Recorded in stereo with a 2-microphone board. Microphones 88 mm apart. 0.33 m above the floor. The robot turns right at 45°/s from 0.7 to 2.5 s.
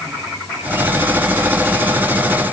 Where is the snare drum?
I don't hear a snare drum.